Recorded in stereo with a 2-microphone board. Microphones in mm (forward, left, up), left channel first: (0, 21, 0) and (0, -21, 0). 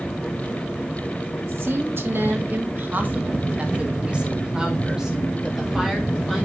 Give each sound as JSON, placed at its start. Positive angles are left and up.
{"t": 1.4, "sound": "a woman speaking", "side_deg": -70, "distance_m": 1.6}